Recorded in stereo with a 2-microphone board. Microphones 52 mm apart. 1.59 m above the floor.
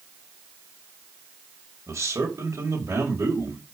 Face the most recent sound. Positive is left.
turn(degrees=-70)  # may be behind; listen again after turning